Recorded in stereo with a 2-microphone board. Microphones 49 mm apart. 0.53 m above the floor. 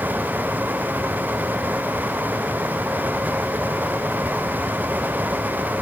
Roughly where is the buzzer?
No buzzer in this recording.